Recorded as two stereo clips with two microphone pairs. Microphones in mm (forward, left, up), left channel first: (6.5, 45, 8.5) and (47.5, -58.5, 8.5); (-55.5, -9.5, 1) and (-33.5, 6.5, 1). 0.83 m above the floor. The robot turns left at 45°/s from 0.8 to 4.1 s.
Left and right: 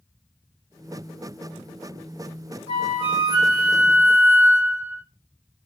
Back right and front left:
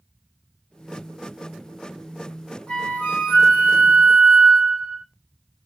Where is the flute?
95° right, 1.4 m; by 5.0 s 160° right, 1.4 m.